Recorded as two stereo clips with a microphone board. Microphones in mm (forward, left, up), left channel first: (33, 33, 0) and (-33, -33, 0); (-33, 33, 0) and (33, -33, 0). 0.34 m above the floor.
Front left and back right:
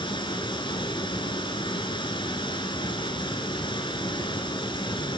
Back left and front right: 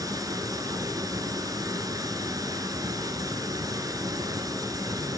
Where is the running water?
10° left, 1.4 m.